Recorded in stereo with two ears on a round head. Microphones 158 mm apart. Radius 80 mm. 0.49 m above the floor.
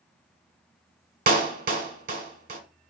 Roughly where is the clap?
Right.